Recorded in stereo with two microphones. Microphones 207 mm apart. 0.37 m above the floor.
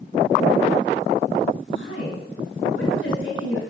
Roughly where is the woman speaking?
Left.